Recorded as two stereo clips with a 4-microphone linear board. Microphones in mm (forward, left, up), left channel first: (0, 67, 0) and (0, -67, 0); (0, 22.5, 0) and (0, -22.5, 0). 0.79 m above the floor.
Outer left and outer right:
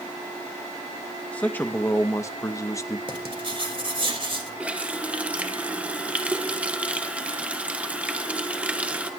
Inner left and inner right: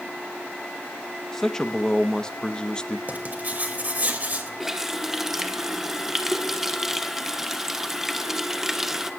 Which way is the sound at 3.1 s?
40° right (ahead or behind).